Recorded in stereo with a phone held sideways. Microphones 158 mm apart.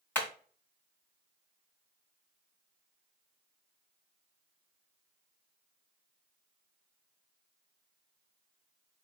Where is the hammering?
10° left (ahead or behind), 1.7 m.